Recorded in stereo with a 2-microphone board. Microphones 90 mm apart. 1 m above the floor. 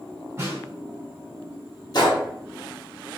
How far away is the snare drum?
About 1.5 m.